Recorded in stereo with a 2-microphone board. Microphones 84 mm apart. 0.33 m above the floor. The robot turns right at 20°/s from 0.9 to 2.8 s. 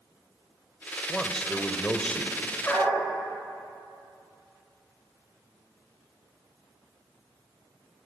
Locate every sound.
1.1 s a man speaking: 5° left (ahead or behind), 1.3 m; by 2.5 s 15° left (ahead or behind), 1.3 m
2.6 s a dog barking: 20° left (ahead or behind), 8 m